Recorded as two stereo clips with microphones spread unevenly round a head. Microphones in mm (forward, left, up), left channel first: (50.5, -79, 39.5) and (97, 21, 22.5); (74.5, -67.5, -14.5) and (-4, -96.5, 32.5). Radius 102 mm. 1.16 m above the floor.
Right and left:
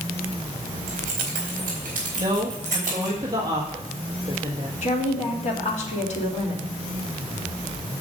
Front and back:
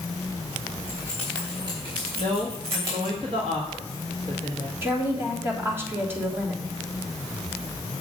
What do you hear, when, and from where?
0.9 s keys jangling: 120° left, 3.5 m; by 3.1 s straight behind, 4 m
2.2 s a woman speaking: 140° left, 1.3 m
4.8 s a woman speaking: 90° right, 3 m